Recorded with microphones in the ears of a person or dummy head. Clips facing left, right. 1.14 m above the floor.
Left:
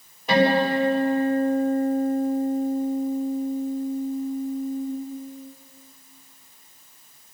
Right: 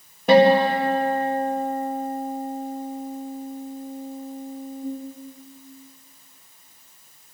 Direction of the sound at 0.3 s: 50° right (ahead or behind).